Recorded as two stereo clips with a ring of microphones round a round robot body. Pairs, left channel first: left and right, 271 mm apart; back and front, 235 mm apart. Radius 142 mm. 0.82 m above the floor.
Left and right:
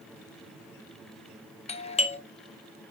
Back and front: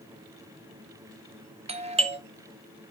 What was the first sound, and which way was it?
A doorbell, 40° left.